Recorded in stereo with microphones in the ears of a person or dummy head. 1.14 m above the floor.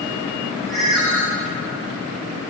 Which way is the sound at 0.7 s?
5° right (ahead or behind).